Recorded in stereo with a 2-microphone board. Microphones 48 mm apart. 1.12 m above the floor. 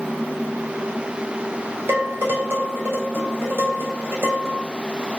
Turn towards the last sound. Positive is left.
turn(degrees=-50)  # may be behind; listen again after turning